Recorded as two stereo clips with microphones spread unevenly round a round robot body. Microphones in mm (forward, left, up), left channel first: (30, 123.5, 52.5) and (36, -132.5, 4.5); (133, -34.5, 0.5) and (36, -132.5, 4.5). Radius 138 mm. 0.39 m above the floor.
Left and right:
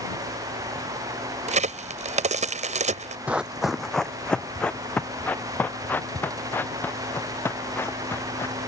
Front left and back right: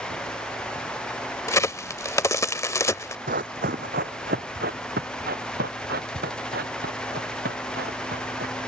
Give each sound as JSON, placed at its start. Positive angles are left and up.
{"t": 1.5, "sound": "a crack", "azimuth_deg": -25}
{"t": 3.3, "sound": "running footsteps", "azimuth_deg": 180}